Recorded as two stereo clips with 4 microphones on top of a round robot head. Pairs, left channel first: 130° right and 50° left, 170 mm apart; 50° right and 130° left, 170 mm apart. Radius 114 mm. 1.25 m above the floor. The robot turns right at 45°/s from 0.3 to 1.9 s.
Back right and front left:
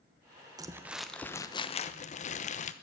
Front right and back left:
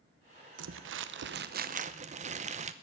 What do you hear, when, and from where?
0.6 s crumpling: 120° left, 0.7 m; by 2.7 s straight behind, 0.7 m